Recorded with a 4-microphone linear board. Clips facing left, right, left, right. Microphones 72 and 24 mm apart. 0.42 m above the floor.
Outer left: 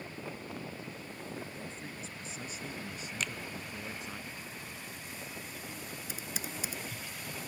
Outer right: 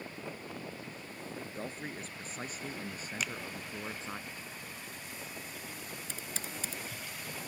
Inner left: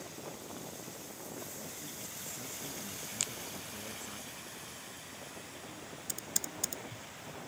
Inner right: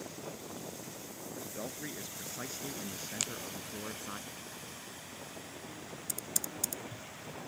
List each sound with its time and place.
1.4 s a man speaking: 55° right (ahead or behind); by 4.2 s 30° right (ahead or behind)
3.2 s a finger snap: 5° right (ahead or behind)
6.1 s typing on a keyboard: 10° left (ahead or behind)